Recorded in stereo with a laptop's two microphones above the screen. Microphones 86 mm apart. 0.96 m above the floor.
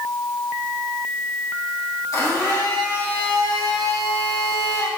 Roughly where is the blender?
Left.